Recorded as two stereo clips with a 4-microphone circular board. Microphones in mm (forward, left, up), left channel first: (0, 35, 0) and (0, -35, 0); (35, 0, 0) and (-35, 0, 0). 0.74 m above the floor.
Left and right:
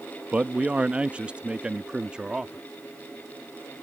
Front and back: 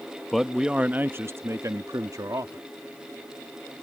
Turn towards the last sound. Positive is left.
turn(degrees=-170)